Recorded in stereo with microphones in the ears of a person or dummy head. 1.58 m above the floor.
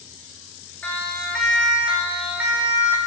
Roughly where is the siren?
Centre.